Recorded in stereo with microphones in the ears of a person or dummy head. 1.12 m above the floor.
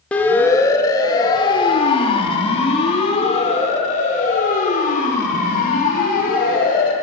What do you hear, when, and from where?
0.1 s a siren: 10° left (ahead or behind), 2.5 m; by 6.9 s 50° left (ahead or behind), 6.5 m